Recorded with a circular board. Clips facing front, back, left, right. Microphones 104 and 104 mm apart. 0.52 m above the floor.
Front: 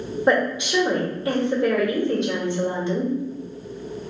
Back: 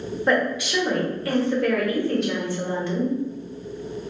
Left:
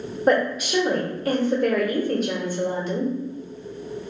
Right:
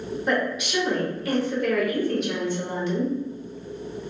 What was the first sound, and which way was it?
A woman speaking, 60° left.